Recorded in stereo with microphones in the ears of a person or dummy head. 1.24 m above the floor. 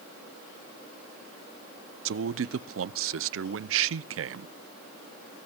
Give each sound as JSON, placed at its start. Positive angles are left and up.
{"t": 2.0, "sound": "a man speaking", "side_deg": -60, "distance_m": 0.6}